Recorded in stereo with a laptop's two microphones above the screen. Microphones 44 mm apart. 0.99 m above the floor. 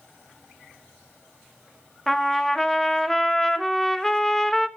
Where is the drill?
I don't hear a drill.